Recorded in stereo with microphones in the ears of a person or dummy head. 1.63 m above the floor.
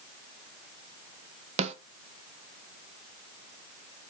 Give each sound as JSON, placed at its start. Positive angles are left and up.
{"t": 1.6, "sound": "a snare drum", "side_deg": -30, "distance_m": 0.5}